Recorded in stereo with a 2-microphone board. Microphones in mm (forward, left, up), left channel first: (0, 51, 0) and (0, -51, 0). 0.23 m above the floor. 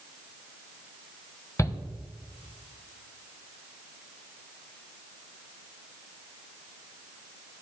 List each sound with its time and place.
1.6 s a shout: 30° left (ahead or behind), 1.0 m